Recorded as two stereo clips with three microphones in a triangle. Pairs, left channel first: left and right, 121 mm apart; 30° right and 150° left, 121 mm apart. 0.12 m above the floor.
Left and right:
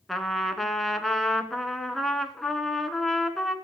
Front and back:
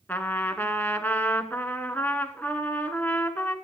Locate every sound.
0.1 s a trumpet: 5° left, 0.8 m